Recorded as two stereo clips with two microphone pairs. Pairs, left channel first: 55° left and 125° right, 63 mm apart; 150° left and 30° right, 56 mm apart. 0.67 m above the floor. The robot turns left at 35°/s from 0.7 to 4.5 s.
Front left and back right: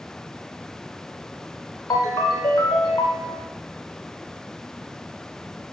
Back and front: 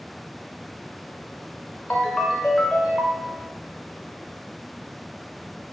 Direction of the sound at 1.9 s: 90° left.